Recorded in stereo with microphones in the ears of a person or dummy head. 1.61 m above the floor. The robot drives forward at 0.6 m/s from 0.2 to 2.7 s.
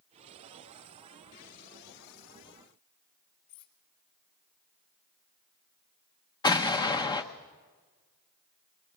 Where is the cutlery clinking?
45° left (ahead or behind), 1.9 m.